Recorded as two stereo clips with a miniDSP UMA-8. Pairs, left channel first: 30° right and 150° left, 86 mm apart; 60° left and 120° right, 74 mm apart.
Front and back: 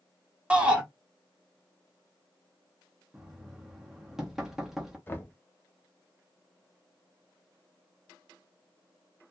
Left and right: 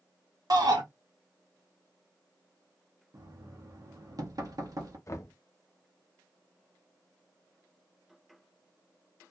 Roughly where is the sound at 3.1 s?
Behind right.